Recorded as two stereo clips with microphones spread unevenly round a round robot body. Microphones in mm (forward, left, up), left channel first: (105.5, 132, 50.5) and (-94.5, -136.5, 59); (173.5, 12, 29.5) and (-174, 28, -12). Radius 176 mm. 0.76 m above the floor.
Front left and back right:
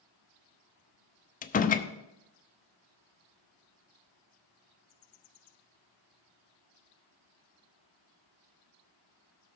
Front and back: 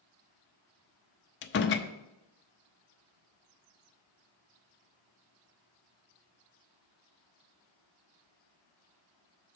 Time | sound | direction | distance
1.4 | a door slam | 25° left | 0.5 m